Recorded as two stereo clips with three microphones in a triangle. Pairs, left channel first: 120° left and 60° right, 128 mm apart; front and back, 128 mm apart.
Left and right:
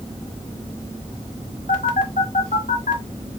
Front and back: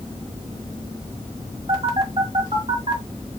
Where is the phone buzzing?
135° left, 1.9 m.